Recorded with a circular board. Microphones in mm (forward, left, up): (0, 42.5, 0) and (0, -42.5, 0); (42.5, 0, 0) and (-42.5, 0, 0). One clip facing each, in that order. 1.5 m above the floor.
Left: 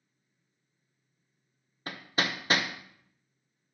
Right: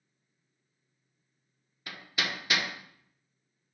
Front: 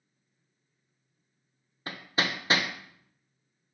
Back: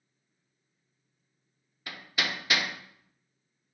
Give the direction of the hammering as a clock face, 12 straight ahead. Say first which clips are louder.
Left 3 dB, front 3 dB; 10 o'clock.